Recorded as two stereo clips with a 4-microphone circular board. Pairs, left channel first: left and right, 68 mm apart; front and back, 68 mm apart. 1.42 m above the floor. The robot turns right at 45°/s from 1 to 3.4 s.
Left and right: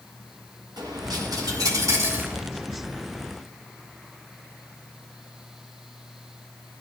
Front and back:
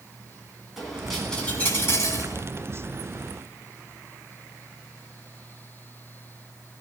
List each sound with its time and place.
0.8 s a dropped coin: 95° right, 6.5 m; by 2.4 s 30° right, 6.5 m